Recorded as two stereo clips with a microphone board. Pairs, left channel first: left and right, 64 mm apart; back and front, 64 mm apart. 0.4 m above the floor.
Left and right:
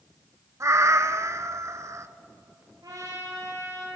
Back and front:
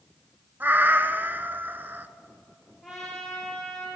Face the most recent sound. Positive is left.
turn(degrees=-90)